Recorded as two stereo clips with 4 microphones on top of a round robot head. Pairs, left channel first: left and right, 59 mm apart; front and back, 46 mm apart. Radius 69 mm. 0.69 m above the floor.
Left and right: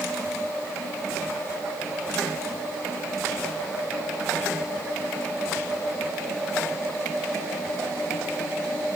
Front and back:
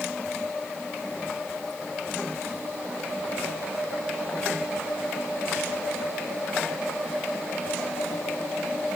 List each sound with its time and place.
Only background noise.